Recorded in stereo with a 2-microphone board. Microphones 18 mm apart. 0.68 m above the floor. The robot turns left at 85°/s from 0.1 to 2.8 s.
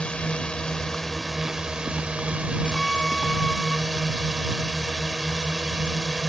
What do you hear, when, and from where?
0.0 s a drone: 90° left; by 6.3 s 140° right
2.7 s a violin: 20° left (ahead or behind); by 3.8 s 15° left (ahead or behind)